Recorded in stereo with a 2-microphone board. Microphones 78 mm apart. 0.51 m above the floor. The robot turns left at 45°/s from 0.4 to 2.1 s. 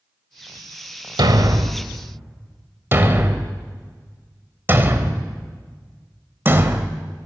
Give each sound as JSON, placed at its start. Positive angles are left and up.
{"t": 1.2, "sound": "a thud", "side_deg": -65, "distance_m": 1.1}